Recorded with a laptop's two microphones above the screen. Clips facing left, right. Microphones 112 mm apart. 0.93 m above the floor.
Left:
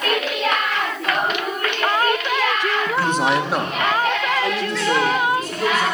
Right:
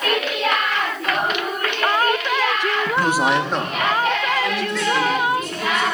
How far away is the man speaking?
About 0.7 m.